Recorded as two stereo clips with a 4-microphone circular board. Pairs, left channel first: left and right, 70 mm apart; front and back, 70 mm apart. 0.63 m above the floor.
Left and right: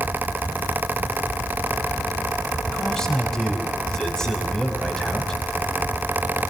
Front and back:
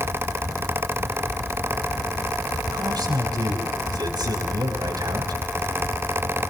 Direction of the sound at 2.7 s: 170° left.